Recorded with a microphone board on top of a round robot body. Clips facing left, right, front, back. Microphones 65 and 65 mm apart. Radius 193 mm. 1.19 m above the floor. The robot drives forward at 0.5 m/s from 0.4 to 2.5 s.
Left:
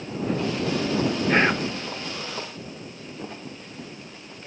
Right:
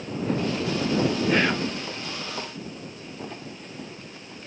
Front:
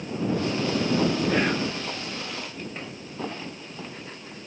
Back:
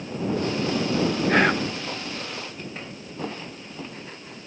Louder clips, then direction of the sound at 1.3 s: Left 2 dB, back 4 dB; 150° left.